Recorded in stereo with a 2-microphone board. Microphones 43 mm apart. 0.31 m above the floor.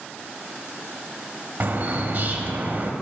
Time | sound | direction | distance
1.6 | a bird | 50° right (ahead or behind) | 0.6 m